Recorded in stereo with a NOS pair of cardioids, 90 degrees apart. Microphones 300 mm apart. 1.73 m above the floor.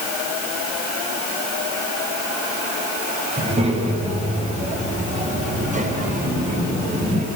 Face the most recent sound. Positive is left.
turn(degrees=-30)